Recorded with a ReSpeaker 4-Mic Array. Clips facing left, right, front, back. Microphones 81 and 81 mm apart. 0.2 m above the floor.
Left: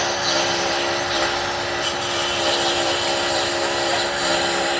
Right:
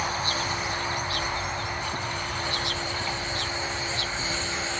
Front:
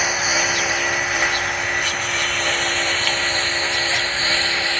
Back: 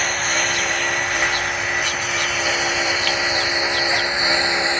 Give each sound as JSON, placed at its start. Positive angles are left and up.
{"t": 0.0, "sound": "a lawn mower", "azimuth_deg": 85}